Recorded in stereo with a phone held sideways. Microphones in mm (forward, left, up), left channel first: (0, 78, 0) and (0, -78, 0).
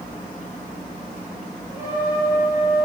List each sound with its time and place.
1.7 s a trumpet: 20° right (ahead or behind), 5.5 m